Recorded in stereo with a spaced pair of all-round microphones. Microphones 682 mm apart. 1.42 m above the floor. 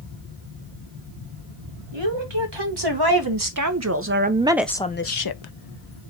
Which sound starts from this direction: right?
A woman speaking, at 1.9 s.